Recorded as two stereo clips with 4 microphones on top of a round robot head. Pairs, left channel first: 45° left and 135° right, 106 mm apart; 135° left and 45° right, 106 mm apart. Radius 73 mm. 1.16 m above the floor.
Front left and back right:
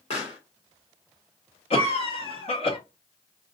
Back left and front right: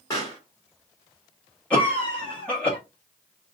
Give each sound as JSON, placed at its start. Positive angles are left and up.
{"t": 0.1, "sound": "a pop", "azimuth_deg": 75, "distance_m": 1.6}
{"t": 1.7, "sound": "a cough", "azimuth_deg": 60, "distance_m": 1.3}